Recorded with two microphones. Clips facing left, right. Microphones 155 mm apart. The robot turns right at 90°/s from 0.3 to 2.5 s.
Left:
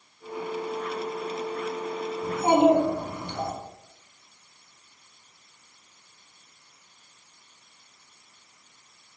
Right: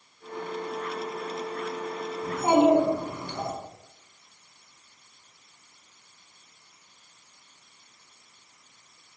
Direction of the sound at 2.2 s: 20° left (ahead or behind).